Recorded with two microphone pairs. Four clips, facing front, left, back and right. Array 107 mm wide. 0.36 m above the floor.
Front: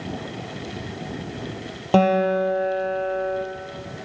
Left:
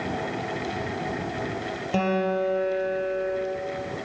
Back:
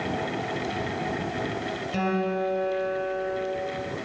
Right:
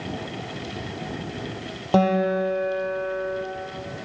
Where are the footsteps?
No footsteps in this recording.